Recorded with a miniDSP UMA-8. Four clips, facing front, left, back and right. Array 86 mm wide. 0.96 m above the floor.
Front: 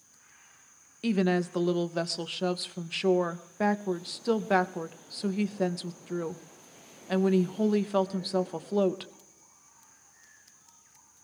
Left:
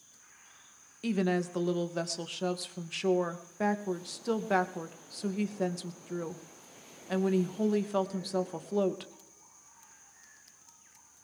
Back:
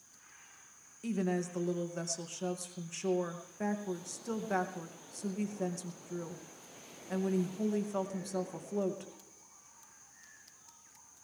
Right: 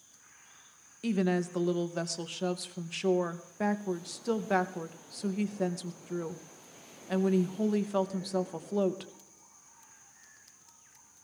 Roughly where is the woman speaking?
Ahead.